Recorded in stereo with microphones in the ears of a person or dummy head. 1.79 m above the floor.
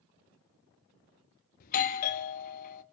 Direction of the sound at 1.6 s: 45° left (ahead or behind).